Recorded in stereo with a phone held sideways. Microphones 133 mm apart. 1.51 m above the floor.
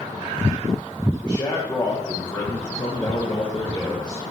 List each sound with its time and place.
1.2 s a man speaking: 25° left (ahead or behind), 1.5 m